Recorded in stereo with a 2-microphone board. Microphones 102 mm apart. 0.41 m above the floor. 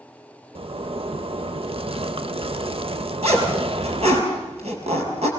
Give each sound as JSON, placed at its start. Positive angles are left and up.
{"t": 0.6, "sound": "a zipper", "side_deg": -65, "distance_m": 0.7}
{"t": 3.2, "sound": "a zipper", "side_deg": -85, "distance_m": 5.0}